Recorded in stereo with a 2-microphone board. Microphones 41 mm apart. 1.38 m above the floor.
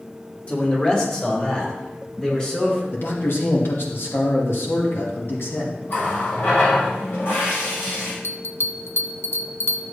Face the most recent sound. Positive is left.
turn(degrees=70)  # may be behind; listen again after turning